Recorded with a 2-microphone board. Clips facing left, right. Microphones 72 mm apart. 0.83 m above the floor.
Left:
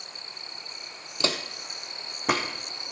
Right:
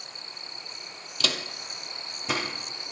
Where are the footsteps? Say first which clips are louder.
Left 2 dB; 25° left (ahead or behind), 0.9 m; by 2.4 s 65° left (ahead or behind), 2 m.